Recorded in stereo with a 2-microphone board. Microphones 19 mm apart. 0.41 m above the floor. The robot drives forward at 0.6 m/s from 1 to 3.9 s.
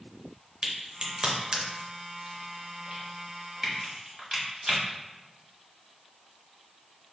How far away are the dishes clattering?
No dishes clattering in this recording.